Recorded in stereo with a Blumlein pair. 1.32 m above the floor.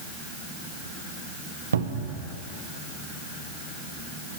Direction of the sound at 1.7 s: 70° right.